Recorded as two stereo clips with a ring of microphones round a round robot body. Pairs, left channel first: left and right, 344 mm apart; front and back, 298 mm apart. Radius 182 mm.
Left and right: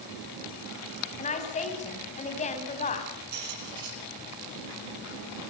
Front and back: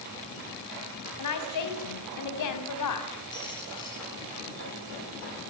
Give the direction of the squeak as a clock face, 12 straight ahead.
3 o'clock.